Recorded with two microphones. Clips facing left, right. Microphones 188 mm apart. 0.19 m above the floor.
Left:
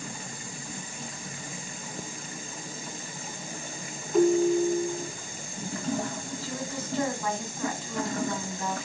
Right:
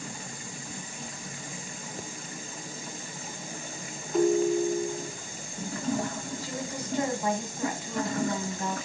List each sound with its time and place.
4.1 s a ringtone: centre (ahead or behind), 0.6 m
6.4 s a woman speaking: 15° right (ahead or behind), 1.3 m